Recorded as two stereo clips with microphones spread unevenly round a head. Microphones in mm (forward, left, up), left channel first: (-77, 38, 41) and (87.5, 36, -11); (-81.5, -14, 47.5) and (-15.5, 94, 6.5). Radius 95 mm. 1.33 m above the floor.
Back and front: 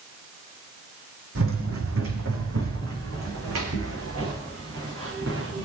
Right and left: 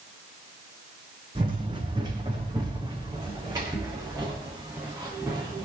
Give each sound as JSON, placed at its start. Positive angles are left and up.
{"t": 1.4, "sound": "running footsteps", "azimuth_deg": -10, "distance_m": 3.5}